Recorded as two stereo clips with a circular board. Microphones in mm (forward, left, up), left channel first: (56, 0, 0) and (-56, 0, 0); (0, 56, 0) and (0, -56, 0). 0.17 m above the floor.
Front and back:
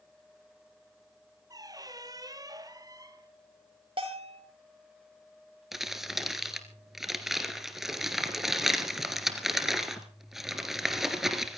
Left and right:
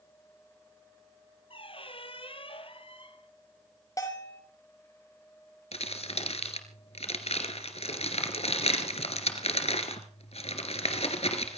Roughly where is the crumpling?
Left.